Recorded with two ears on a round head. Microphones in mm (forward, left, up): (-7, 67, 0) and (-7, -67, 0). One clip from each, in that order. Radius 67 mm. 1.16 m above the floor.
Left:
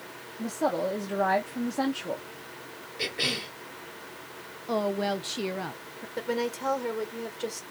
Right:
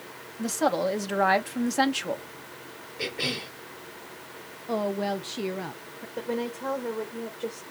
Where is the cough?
25° left (ahead or behind), 2.5 m.